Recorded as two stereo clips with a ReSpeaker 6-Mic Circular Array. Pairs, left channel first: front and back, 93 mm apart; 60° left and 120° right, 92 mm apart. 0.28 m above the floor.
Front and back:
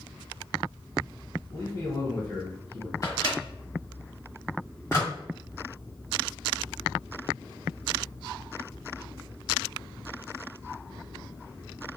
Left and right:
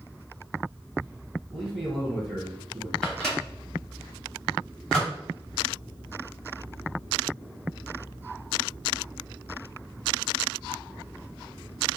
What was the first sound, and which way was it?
A man speaking, 35° right.